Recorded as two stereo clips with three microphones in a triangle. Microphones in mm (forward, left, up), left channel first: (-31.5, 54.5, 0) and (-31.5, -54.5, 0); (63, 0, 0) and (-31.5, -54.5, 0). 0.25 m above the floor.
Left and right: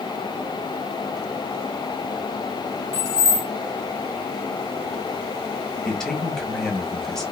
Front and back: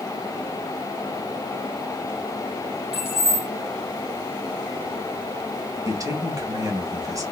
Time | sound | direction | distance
2.9 | keys jangling | 145° right | 1.7 m
5.8 | a man speaking | 175° left | 1.1 m